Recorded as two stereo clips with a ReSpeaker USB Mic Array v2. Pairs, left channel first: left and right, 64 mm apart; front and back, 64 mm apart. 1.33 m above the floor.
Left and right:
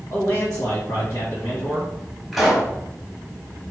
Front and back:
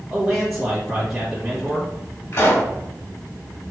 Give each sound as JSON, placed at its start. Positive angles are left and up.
{"t": 0.1, "sound": "a man speaking", "azimuth_deg": 95, "distance_m": 1.7}
{"t": 2.3, "sound": "a pop", "azimuth_deg": 0, "distance_m": 1.6}